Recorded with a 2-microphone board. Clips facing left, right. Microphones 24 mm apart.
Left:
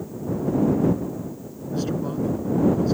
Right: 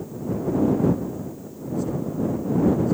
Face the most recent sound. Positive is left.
turn(degrees=60)  # may be behind; listen again after turning